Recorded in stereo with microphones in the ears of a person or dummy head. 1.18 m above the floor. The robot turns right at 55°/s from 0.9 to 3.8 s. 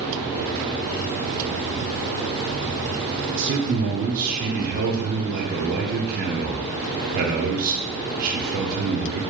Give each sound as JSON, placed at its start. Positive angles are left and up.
{"t": 3.4, "sound": "a man speaking", "side_deg": -60, "distance_m": 0.6}